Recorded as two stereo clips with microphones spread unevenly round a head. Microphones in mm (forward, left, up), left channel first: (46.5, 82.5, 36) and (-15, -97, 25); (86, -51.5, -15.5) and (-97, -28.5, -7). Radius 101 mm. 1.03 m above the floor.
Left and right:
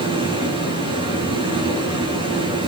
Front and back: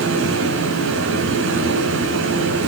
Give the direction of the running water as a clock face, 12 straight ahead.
6 o'clock.